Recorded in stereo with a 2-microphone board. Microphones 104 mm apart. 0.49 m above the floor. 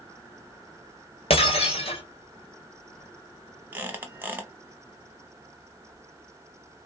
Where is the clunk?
I don't hear a clunk.